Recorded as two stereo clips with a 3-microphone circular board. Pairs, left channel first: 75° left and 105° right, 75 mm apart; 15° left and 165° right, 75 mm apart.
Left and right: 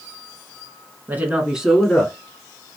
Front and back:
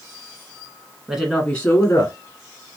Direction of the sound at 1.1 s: 100° right.